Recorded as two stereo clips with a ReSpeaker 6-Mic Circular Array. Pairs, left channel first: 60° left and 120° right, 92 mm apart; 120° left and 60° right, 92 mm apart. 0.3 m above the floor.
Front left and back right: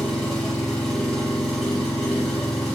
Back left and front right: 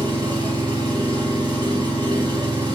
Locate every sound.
0.0 s an engine running: 25° right, 8.5 m